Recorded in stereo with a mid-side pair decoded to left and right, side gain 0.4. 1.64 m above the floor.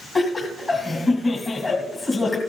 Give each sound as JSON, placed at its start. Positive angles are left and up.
{"t": 0.1, "sound": "laughter", "azimuth_deg": 35, "distance_m": 2.0}